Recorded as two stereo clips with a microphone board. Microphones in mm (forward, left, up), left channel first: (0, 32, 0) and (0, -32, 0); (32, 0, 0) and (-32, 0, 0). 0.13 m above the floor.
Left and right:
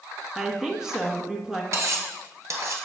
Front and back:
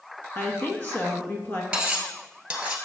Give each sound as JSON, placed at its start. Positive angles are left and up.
{"t": 0.3, "sound": "a woman speaking", "azimuth_deg": -20, "distance_m": 1.3}
{"t": 1.7, "sound": "cutlery clinking", "azimuth_deg": -110, "distance_m": 1.3}